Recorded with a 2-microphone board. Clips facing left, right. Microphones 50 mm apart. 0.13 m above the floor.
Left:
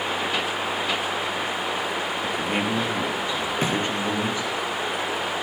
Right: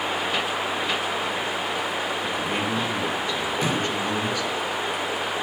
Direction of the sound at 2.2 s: 25° left (ahead or behind).